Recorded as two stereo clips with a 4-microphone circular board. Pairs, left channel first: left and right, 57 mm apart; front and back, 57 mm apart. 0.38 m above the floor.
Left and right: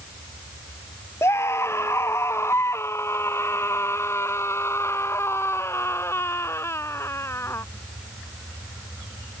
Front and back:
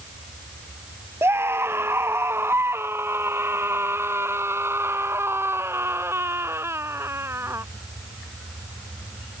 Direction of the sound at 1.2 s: 135° left.